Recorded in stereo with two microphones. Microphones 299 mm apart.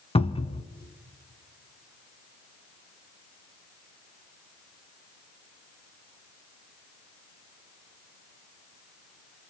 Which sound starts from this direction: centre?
A cupboard door, at 0.1 s.